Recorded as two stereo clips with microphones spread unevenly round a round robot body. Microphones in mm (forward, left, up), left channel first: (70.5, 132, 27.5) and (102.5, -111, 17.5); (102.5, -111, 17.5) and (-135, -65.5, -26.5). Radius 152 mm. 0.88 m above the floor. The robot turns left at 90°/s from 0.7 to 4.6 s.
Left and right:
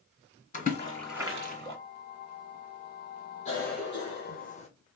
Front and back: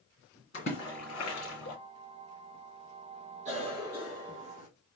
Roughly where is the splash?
Ahead left.